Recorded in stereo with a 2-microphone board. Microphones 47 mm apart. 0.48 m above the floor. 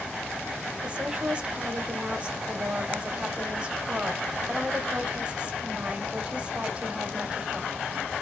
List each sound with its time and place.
0.8 s a woman speaking: 25° right (ahead or behind), 0.9 m